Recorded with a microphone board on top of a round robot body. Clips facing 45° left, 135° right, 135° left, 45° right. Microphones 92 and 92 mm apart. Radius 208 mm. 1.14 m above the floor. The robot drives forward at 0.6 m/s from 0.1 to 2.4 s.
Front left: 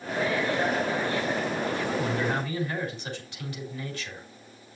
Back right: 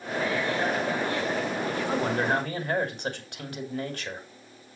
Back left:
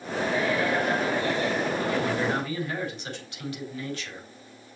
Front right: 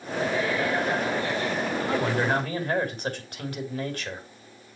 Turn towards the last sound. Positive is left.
turn(degrees=-95)